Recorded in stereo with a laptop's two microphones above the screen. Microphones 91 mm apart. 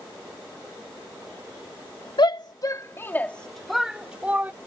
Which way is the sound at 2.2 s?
60° left (ahead or behind).